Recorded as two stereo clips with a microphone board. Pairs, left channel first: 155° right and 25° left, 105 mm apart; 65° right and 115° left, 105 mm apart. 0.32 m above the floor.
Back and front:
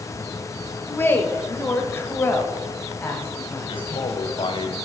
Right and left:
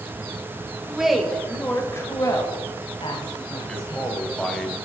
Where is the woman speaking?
175° left, 1.3 m; by 4.1 s 85° right, 3 m.